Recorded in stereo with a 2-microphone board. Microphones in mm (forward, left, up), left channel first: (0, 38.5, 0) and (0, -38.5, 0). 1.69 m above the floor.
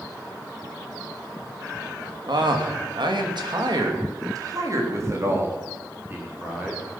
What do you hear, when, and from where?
2.3 s a man speaking: 75° right (ahead or behind), 2.5 m; by 6.8 s 20° right (ahead or behind), 5 m